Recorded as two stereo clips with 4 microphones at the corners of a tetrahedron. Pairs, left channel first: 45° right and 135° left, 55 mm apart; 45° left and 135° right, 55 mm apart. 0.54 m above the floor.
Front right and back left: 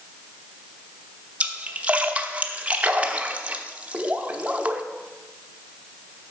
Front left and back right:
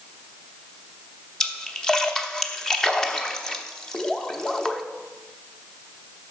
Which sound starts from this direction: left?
A splash, at 1.4 s.